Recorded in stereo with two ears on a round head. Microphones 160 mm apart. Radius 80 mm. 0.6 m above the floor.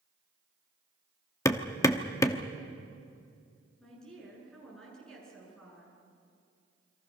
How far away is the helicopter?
I don't hear a helicopter.